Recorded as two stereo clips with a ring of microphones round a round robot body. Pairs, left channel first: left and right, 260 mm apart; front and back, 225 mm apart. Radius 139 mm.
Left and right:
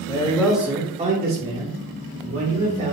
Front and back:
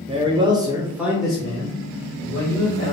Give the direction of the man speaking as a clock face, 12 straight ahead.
7 o'clock.